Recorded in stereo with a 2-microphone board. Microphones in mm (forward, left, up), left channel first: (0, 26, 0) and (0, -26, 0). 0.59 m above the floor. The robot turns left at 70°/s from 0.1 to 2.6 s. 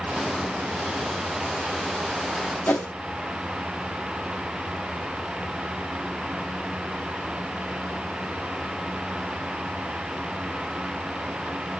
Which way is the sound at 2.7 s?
35° left (ahead or behind).